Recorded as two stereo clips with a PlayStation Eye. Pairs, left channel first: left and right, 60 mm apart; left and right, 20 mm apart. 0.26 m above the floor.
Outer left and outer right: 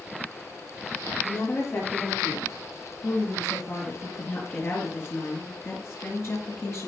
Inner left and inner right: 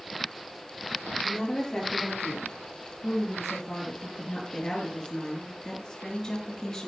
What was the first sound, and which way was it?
A woman speaking, 35° left (ahead or behind).